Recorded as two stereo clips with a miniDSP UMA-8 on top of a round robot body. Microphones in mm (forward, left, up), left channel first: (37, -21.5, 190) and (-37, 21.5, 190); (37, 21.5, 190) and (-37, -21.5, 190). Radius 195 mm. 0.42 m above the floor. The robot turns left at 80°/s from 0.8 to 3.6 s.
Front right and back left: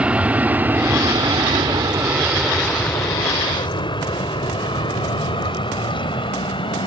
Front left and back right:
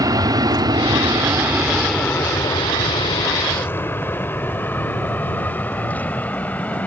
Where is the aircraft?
140° right; by 6.9 s 40° right.